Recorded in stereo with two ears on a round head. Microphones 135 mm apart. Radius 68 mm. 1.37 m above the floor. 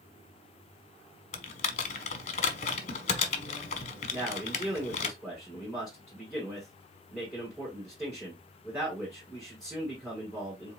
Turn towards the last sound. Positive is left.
turn(degrees=-5)  # may be behind; listen again after turning